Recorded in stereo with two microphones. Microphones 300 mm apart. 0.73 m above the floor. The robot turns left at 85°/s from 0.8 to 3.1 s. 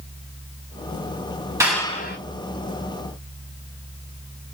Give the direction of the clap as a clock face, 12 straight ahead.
6 o'clock.